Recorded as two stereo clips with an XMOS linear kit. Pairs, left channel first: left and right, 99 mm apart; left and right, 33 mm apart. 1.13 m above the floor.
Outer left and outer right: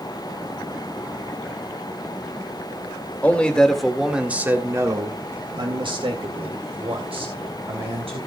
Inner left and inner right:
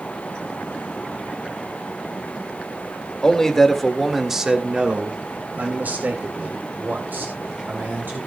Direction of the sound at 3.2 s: 15° left (ahead or behind).